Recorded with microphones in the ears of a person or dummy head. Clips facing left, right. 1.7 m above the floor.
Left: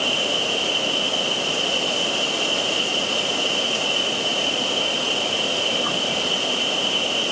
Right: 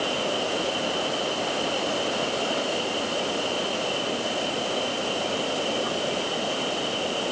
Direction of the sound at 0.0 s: 75° left (ahead or behind).